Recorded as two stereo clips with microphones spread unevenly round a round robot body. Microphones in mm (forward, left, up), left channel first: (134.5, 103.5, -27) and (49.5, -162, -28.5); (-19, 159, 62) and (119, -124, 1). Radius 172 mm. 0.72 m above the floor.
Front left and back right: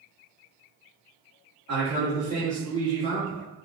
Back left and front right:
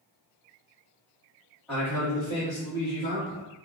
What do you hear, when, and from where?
1.7 s a man speaking: 145° right, 1.7 m; by 3.5 s 145° left, 1.3 m